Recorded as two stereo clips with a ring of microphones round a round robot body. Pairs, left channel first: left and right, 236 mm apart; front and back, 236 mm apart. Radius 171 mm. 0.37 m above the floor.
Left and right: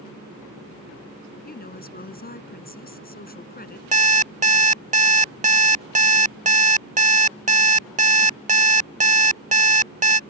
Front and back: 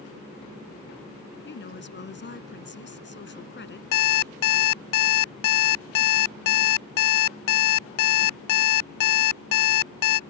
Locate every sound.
1.4 s a woman speaking: 40° left
3.9 s an alarm clock: 30° right